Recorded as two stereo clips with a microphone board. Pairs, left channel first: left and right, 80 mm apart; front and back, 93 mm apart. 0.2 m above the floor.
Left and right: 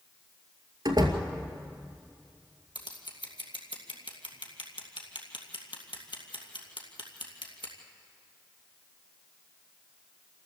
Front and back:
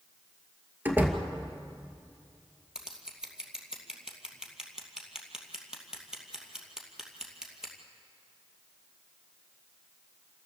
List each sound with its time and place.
0.8 s a door slam: 110° right, 2 m
2.8 s scissors: 95° left, 2.5 m